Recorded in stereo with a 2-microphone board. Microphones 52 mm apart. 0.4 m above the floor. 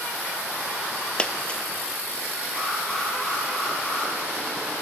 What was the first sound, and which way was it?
A dropped coin, 20° left (ahead or behind).